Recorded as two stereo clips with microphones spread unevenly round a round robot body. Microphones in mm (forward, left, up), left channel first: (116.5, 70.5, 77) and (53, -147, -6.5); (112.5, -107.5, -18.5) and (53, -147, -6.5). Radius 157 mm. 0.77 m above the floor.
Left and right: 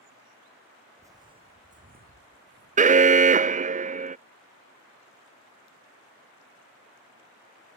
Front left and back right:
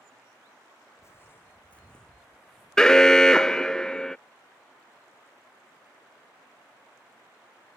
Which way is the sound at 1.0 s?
20° right.